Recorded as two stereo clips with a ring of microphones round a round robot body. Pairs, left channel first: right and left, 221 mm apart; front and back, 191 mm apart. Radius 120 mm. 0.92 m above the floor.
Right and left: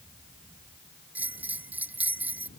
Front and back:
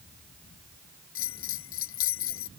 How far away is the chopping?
No chopping in this recording.